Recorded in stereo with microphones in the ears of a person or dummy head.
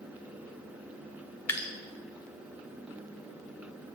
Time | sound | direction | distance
1.5 | dripping | 15° left (ahead or behind) | 0.5 m